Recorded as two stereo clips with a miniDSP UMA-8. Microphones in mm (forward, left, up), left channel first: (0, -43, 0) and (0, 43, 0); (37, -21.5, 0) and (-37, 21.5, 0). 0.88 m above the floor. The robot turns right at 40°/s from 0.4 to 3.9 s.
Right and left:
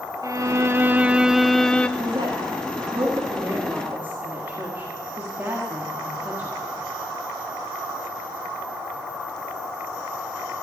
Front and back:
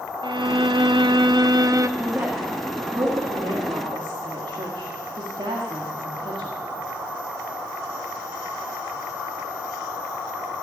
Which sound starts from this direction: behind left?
A violin, at 0.2 s.